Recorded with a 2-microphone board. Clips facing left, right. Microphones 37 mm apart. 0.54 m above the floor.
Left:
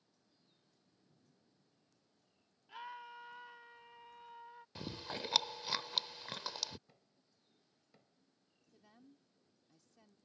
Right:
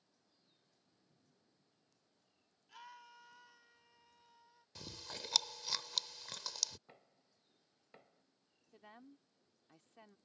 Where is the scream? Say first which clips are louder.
Left 7 dB; 25° left (ahead or behind); by 4.7 s 55° left (ahead or behind).